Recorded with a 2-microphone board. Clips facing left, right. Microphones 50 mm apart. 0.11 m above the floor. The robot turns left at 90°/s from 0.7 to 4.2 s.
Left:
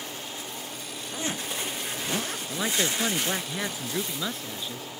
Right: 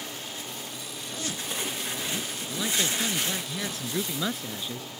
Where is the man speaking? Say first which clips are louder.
Left 1 dB; 150° left; by 4.9 s 5° right.